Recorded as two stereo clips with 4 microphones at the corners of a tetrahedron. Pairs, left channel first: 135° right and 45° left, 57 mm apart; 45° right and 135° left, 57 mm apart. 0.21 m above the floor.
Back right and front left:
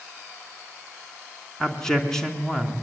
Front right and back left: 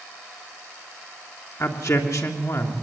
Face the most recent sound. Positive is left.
turn(degrees=-55)